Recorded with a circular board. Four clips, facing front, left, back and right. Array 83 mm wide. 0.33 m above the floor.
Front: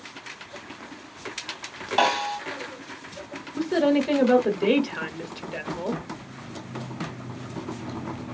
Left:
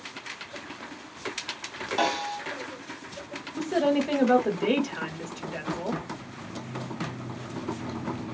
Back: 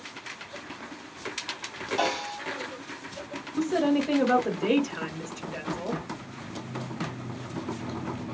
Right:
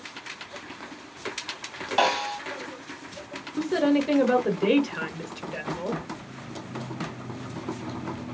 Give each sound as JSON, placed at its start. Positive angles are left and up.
{"t": 2.0, "sound": "a snare drum", "azimuth_deg": -35, "distance_m": 0.9}
{"t": 3.6, "sound": "a woman speaking", "azimuth_deg": -30, "distance_m": 1.0}